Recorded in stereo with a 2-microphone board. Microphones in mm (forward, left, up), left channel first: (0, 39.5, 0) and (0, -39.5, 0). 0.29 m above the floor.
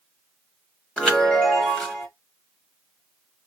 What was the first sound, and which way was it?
A chime, 10° left (ahead or behind).